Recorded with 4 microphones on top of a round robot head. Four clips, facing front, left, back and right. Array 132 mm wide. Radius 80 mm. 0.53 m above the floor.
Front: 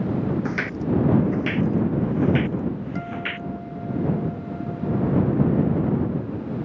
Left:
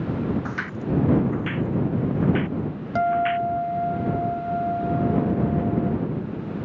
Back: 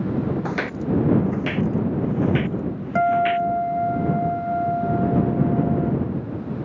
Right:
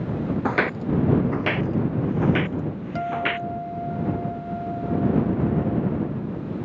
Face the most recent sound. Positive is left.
turn(degrees=155)